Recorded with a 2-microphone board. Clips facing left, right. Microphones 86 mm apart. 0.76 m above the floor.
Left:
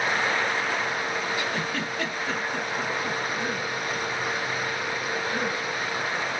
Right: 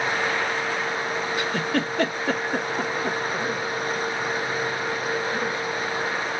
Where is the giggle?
60° right (ahead or behind), 1.4 m.